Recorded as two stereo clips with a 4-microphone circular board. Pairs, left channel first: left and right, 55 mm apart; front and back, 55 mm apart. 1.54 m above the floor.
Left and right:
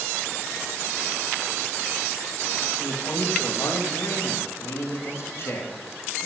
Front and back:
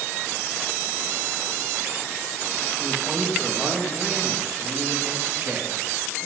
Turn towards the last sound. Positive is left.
turn(degrees=135)